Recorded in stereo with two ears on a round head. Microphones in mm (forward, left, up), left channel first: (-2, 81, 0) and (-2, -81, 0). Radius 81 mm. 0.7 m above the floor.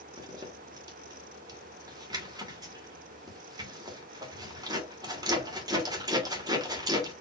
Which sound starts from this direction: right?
A zipper, at 0.2 s.